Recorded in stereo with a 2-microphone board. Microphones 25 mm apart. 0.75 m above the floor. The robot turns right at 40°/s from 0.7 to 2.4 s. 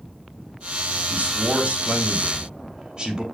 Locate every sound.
1.1 s a man speaking: 80° right, 3 m; by 3.2 s 25° right, 3 m